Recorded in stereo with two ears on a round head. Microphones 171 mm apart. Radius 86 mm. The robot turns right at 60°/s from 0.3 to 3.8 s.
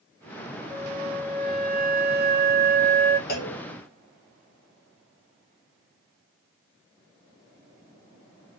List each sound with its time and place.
0.7 s a flute: 135° right, 0.7 m; by 3.2 s 15° left, 0.7 m
3.3 s a clunk: 50° left (ahead or behind), 0.8 m; by 3.6 s 30° left (ahead or behind), 0.8 m